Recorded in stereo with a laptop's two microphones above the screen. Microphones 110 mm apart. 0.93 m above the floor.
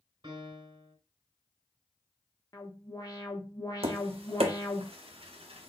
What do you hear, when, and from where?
0.2 s a piano: 40° right (ahead or behind), 2.5 m
2.5 s an alarm: 35° left (ahead or behind), 1.2 m
3.8 s tapping: 60° right (ahead or behind), 0.7 m